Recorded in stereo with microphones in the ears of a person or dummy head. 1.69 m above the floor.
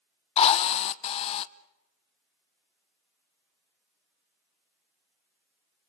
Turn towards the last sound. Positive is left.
turn(degrees=35)  # may be behind; listen again after turning